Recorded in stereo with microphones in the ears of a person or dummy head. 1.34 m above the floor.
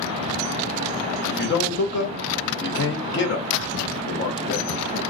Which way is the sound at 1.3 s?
75° left (ahead or behind).